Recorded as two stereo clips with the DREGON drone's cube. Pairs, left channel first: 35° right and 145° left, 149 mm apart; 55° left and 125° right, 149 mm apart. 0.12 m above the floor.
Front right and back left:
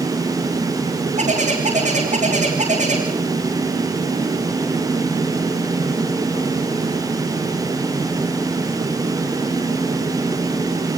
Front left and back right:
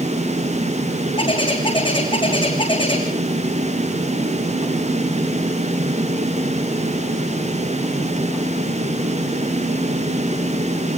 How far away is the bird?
About 5.5 m.